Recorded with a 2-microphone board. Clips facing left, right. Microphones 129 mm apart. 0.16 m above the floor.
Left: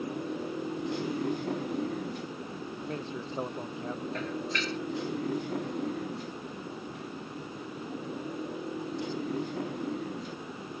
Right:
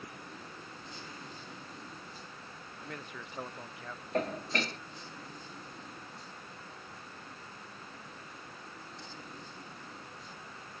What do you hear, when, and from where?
0.0 s a motorcycle: 70° left (ahead or behind); by 10.8 s 85° left
2.8 s a man speaking: 25° left (ahead or behind)
4.1 s dishes clattering: 45° right (ahead or behind)